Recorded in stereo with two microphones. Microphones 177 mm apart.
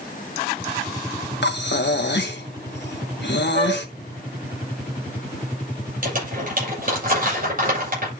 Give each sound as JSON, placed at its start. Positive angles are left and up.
{"t": 1.4, "sound": "breathing", "side_deg": 80, "distance_m": 1.3}
{"t": 3.5, "sound": "a flute", "side_deg": -60, "distance_m": 8.0}
{"t": 6.0, "sound": "crumpling", "side_deg": -55, "distance_m": 8.0}